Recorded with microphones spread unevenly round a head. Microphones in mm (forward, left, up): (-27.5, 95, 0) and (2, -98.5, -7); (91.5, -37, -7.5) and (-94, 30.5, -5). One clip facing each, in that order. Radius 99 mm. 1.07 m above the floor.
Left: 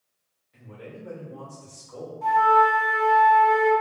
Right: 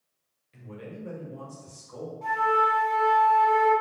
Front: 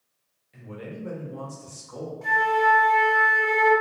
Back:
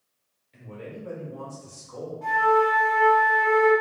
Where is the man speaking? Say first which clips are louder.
Right 1 dB, front 1 dB; 100° right, 0.8 m; by 2.1 s 5° left, 1.1 m.